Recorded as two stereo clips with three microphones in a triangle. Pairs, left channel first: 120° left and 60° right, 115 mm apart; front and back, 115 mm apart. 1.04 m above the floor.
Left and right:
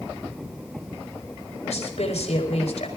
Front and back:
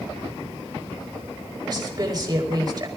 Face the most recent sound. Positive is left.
turn(degrees=130)